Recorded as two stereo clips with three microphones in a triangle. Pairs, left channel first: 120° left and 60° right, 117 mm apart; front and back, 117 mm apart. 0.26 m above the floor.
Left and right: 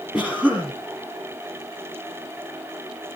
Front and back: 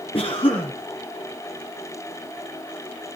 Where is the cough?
20° left, 2.5 m.